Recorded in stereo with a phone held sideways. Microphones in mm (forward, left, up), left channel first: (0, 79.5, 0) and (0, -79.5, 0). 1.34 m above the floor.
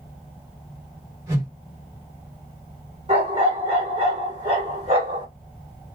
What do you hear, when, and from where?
1.3 s a whoosh: 20° right (ahead or behind), 2 m
3.1 s a dog barking: 45° right (ahead or behind), 1.7 m